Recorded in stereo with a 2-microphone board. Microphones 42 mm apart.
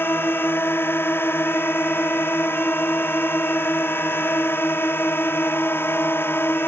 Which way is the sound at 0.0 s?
60° left (ahead or behind).